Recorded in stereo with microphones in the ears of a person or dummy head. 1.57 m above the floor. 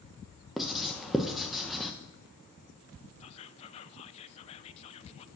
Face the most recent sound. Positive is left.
turn(degrees=40)  # may be behind; listen again after turning